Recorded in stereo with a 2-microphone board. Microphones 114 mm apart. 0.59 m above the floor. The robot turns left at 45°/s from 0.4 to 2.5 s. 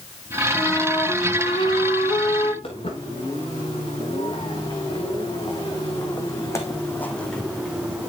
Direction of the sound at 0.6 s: 155° left.